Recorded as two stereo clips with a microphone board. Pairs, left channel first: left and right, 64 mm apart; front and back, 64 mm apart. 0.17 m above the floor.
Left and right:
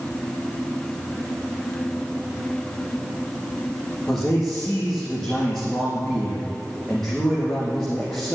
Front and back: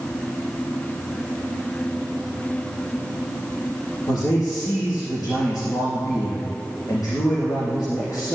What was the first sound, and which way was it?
A man speaking, 10° left.